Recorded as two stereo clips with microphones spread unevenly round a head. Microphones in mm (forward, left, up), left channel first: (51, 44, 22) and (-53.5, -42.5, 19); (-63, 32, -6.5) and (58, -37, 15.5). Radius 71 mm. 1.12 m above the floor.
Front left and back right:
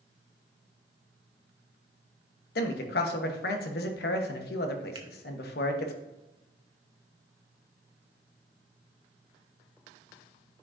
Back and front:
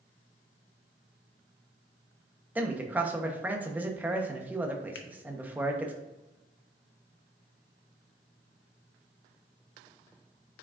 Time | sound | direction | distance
2.5 | a man speaking | 50° left | 1.1 m
5.0 | a finger snap | 160° left | 0.8 m